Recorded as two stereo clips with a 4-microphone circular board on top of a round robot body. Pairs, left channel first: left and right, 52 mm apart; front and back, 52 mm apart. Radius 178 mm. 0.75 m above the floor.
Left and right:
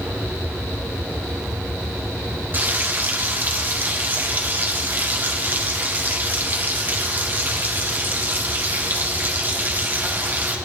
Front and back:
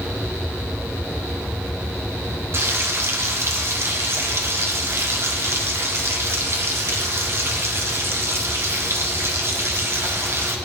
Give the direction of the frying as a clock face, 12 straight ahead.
5 o'clock.